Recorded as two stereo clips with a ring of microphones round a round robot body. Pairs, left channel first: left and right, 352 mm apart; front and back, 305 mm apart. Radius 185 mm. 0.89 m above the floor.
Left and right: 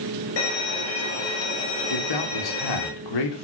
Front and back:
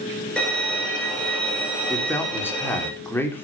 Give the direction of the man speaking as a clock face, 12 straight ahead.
9 o'clock.